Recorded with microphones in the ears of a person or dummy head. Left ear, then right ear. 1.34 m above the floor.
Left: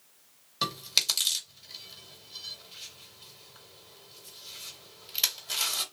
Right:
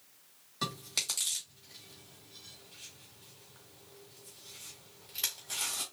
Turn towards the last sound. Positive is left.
turn(degrees=25)  # may be behind; listen again after turning